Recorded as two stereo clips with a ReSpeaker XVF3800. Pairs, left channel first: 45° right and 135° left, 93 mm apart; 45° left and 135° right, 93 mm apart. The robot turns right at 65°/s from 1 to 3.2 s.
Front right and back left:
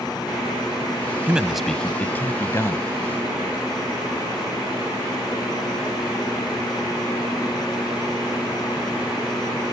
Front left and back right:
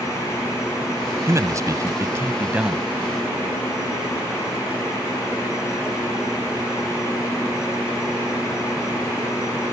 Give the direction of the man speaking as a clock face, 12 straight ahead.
5 o'clock.